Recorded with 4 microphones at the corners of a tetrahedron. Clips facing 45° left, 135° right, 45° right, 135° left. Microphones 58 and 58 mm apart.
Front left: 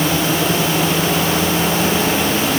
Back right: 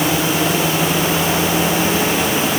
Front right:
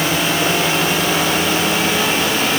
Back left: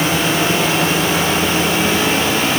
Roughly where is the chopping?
I don't hear chopping.